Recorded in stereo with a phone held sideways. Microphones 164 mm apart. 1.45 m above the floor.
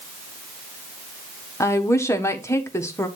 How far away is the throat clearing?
I don't hear throat clearing.